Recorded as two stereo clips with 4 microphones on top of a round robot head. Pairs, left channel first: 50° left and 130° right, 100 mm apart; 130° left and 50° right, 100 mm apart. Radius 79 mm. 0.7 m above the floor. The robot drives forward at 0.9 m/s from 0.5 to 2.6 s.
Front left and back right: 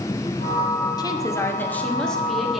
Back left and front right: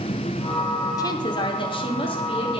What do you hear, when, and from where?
1.0 s a woman speaking: 90° left, 1.3 m; by 2.6 s 145° left, 1.9 m